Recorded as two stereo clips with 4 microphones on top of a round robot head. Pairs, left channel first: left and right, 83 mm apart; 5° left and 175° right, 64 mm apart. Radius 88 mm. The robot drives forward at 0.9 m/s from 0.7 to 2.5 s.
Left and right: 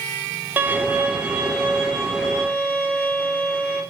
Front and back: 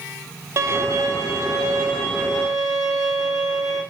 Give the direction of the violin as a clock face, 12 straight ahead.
5 o'clock.